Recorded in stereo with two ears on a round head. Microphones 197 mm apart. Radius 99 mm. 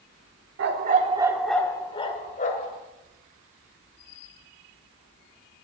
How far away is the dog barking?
About 1.3 m.